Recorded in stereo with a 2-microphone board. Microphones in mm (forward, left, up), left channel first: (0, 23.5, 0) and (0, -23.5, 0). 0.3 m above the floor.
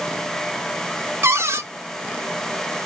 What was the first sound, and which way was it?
A cupboard door, 70° right (ahead or behind).